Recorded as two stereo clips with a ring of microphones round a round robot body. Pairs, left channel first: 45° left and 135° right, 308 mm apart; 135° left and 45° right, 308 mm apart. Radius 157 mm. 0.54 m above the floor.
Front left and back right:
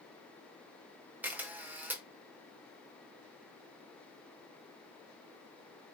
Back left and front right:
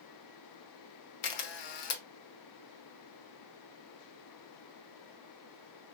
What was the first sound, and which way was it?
A camera shutter, 140° left.